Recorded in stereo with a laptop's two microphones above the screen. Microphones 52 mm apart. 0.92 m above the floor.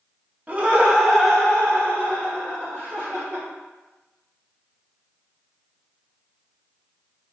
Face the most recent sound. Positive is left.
turn(degrees=50)  # may be behind; listen again after turning